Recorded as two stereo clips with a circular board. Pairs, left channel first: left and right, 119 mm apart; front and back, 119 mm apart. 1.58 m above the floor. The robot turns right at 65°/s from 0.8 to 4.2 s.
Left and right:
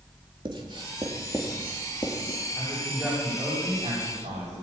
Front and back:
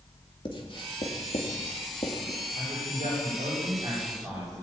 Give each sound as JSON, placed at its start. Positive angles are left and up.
{"t": 0.5, "sound": "writing", "azimuth_deg": -45, "distance_m": 3.5}
{"t": 2.5, "sound": "a woman speaking", "azimuth_deg": 145, "distance_m": 9.0}